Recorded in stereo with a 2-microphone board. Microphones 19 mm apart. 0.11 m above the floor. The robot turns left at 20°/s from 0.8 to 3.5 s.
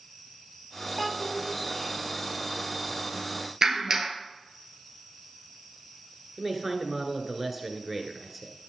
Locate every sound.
1.0 s a child speaking: 5° right (ahead or behind), 1.6 m; by 1.5 s 5° left (ahead or behind), 1.6 m
3.6 s a clap: 50° right (ahead or behind), 1.3 m
6.4 s a man speaking: 10° right (ahead or behind), 1.3 m